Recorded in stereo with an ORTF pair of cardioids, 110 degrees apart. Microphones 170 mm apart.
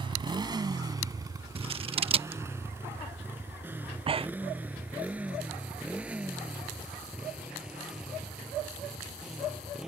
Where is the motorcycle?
30° right; by 9.9 s 5° right.